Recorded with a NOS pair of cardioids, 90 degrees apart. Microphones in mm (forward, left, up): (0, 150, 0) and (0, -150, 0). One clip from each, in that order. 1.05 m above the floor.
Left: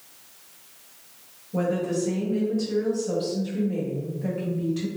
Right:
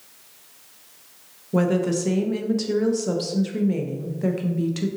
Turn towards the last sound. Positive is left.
turn(degrees=-65)